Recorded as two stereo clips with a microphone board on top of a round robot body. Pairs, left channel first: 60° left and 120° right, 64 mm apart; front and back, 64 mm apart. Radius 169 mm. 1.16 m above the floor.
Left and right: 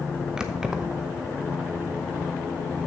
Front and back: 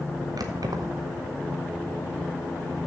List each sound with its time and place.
0.4 s keys jangling: 160° left, 0.8 m